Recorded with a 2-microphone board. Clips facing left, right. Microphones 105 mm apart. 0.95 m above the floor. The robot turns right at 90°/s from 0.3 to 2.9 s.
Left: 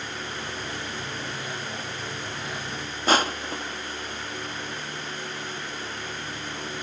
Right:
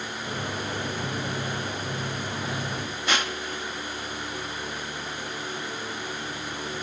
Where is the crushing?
40° left (ahead or behind).